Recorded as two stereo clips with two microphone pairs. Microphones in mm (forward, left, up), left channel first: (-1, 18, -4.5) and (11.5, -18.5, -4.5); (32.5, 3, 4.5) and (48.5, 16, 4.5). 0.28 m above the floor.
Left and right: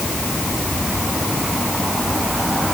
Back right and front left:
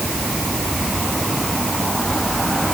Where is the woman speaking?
I don't hear a woman speaking.